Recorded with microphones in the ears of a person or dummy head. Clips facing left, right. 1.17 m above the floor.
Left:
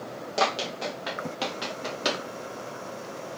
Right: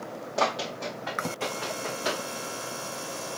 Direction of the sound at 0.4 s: 40° left (ahead or behind).